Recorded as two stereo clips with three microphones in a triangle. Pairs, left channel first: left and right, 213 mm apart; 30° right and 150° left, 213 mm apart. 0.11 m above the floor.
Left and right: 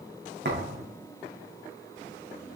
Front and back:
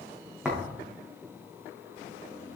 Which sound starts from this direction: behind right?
A thud, at 0.5 s.